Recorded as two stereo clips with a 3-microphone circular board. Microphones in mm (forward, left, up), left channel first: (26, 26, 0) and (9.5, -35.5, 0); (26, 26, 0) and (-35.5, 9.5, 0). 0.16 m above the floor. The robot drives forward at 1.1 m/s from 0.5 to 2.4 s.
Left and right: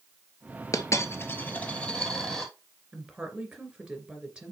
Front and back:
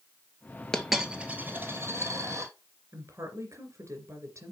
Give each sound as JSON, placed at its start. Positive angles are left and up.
{"t": 0.7, "sound": "a dropped coin", "azimuth_deg": 95, "distance_m": 1.0}
{"t": 2.9, "sound": "a woman speaking", "azimuth_deg": 180, "distance_m": 2.5}